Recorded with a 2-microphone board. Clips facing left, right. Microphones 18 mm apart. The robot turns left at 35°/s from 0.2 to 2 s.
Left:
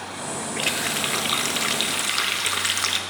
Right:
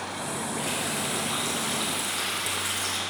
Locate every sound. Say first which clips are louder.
0.6 s a running tap: left 7 dB; 110° left, 0.7 m; by 3.0 s 55° left, 0.7 m